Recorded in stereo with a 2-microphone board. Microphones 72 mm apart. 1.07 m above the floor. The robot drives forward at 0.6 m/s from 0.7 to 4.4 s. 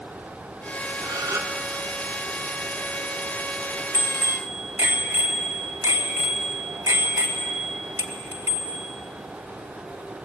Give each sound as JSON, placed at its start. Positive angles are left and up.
{"t": 1.0, "sound": "a gasp", "side_deg": -55, "distance_m": 1.2}
{"t": 3.9, "sound": "a bicycle bell", "side_deg": -35, "distance_m": 3.5}